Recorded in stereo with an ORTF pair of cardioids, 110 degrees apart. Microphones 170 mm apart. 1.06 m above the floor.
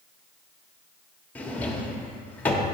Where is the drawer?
10° left, 1.1 m.